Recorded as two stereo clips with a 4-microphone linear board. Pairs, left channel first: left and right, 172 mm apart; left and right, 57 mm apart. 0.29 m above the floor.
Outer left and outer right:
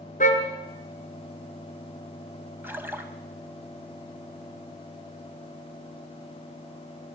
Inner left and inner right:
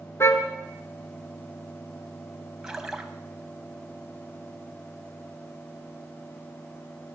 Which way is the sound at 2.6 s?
10° right (ahead or behind).